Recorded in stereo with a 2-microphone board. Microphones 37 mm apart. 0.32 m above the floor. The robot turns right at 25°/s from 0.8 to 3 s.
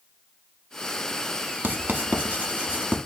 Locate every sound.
1.6 s writing: 75° right (ahead or behind), 0.6 m; by 3.0 s 40° right (ahead or behind), 0.6 m